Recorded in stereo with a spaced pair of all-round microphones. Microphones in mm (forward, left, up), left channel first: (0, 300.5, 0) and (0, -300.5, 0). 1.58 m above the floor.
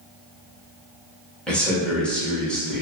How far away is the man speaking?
About 1.1 m.